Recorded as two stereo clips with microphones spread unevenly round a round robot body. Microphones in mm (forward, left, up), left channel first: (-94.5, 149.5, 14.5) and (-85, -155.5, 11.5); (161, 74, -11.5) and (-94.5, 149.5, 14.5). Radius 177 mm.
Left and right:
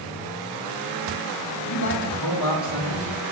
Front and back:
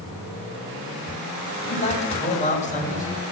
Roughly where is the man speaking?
Ahead left.